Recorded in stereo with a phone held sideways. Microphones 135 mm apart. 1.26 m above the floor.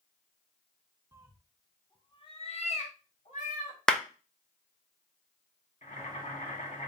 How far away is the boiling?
About 1.6 m.